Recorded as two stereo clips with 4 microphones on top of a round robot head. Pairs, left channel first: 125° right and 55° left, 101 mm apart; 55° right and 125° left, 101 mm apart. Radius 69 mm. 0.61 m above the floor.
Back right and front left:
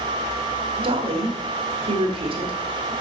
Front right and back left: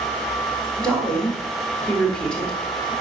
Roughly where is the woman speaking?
Ahead left.